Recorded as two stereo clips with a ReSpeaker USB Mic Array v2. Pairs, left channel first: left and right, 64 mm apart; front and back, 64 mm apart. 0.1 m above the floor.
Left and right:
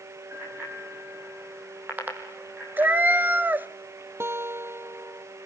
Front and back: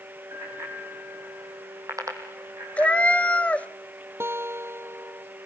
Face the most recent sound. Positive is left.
turn(degrees=-135)